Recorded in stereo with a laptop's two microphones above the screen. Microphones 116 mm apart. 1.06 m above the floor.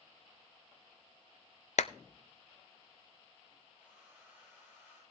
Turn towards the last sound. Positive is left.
turn(degrees=-15)  # may be behind; listen again after turning